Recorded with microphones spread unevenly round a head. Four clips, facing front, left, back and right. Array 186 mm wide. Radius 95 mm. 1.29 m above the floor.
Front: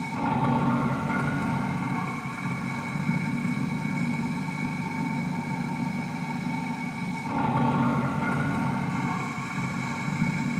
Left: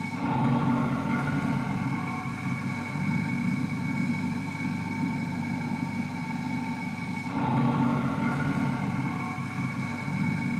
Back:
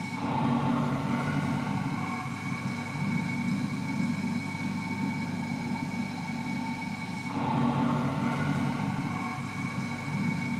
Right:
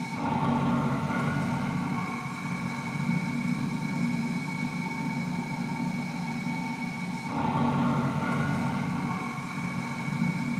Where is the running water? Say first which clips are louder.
Left 1 dB, front 3 dB; 15° right, 1.8 m.